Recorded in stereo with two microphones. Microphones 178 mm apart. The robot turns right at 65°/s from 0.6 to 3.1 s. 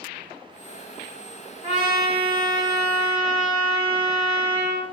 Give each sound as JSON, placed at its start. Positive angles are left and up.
{"t": 1.6, "sound": "a trumpet", "azimuth_deg": -105, "distance_m": 1.8}